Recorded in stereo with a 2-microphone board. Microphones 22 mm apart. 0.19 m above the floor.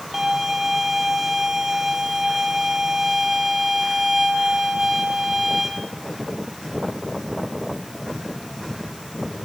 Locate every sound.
0.1 s a violin: 15° right (ahead or behind), 1.2 m